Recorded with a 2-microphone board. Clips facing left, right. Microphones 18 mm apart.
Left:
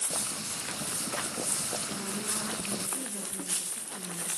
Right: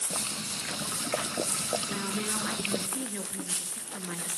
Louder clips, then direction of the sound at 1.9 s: Right 3 dB; 60° right (ahead or behind).